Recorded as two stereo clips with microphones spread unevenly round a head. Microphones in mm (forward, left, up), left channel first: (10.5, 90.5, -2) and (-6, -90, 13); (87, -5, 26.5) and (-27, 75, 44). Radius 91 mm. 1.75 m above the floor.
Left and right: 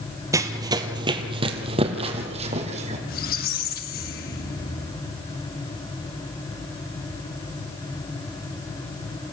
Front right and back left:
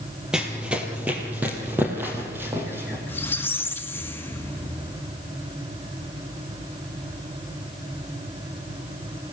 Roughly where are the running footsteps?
Behind right.